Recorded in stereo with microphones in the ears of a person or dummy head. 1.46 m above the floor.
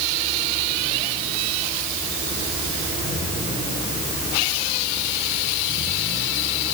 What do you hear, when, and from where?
Only background noise.